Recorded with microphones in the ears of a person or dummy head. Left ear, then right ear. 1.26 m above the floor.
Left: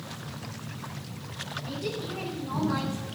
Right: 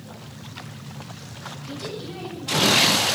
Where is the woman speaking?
85° right, 8 m; by 3.0 s 80° right, 8 m.